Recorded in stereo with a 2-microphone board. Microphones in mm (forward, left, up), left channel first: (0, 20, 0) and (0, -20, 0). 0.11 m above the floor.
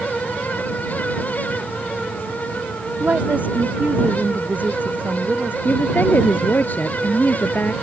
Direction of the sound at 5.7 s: 50° left (ahead or behind).